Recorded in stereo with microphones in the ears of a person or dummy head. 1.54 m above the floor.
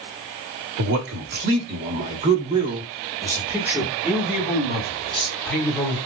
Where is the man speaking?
60° right (ahead or behind), 1.7 m; by 6.0 s 15° left (ahead or behind), 3 m.